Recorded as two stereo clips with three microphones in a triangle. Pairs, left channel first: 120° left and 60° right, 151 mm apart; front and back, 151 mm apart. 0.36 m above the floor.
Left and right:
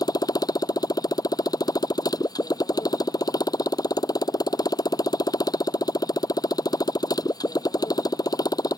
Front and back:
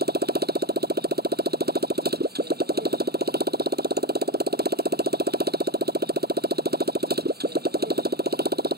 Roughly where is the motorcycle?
Behind.